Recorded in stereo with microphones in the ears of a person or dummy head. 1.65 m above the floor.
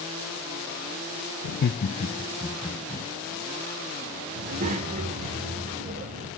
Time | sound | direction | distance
1.4 | laughter | 80° left | 0.7 m
4.3 | a child speaking | 40° right (ahead or behind) | 2.5 m